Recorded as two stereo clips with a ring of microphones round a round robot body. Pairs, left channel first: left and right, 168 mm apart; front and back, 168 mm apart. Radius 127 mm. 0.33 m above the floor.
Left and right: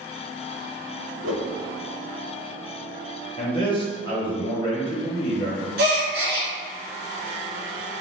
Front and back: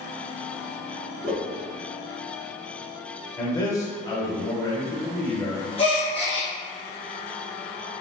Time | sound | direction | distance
1.2 | a whoosh | 125° right | 0.6 m
3.4 | a man speaking | 55° left | 1.3 m
5.8 | a gasp | 70° right | 0.9 m